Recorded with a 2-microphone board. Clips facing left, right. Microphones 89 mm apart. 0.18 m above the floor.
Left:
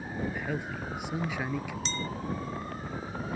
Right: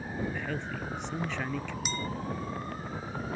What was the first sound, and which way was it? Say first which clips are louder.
A man speaking: left 1 dB; 10° left (ahead or behind).